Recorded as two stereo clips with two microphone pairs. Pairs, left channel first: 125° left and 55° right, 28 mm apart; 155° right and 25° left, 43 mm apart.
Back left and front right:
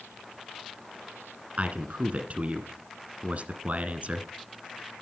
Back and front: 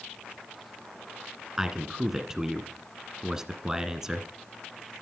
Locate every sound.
1.6 s a man speaking: 50° right, 1.7 m